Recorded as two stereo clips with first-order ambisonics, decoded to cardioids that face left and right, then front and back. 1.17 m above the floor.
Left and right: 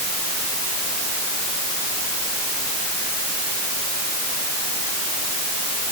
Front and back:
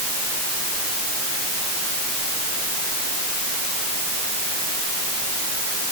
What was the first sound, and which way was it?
Only background noise.